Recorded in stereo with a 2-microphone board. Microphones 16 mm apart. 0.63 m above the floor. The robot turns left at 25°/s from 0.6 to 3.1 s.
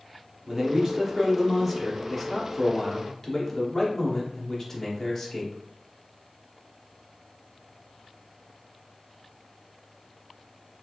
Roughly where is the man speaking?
Behind right.